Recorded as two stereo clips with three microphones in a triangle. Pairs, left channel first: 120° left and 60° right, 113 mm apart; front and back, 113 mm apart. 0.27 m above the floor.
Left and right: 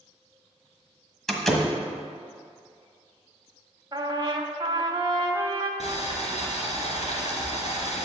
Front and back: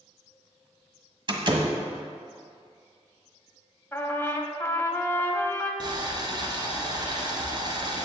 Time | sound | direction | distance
1.3 | a door slam | 155° right | 1.4 m
3.9 | a trumpet | 60° right | 1.0 m
5.8 | boiling | 130° left | 2 m